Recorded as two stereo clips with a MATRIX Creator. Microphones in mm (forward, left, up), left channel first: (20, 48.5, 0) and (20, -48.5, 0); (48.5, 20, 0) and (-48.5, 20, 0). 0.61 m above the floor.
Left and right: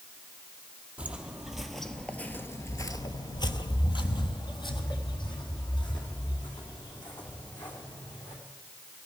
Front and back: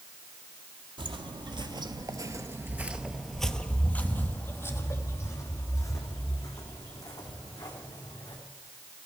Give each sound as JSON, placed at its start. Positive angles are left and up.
{"t": 1.0, "sound": "footsteps", "azimuth_deg": -165, "distance_m": 1.1}